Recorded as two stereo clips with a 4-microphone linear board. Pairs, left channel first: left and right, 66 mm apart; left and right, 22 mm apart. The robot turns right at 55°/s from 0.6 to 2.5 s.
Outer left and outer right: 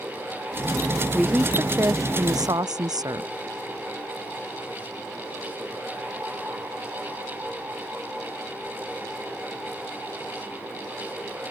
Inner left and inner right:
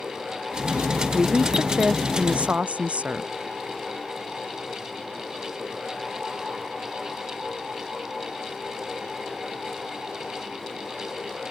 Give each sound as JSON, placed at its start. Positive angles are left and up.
{"t": 1.1, "sound": "a woman speaking", "azimuth_deg": -175}